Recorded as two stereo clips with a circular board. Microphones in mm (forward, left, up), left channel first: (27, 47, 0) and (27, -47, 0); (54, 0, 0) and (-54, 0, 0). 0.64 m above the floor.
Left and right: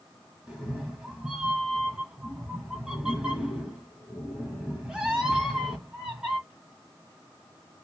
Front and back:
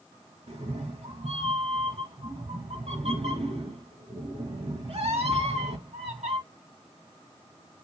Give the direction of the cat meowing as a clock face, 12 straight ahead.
6 o'clock.